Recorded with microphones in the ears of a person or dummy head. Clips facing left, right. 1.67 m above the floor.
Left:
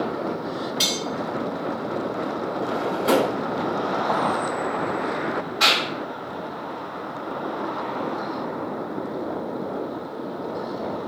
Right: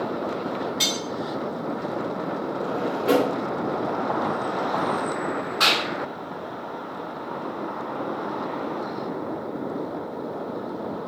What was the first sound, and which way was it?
Cutlery clinking, 5° left (ahead or behind).